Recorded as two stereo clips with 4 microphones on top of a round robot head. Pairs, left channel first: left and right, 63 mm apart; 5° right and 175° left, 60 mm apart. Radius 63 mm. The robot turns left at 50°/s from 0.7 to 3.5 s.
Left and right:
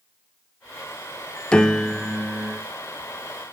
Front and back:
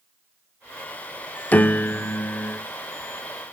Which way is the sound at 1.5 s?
30° left.